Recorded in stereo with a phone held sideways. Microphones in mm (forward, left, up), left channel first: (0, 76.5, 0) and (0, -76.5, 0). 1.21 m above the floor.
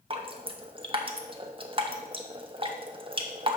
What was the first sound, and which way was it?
Dripping, 35° right (ahead or behind).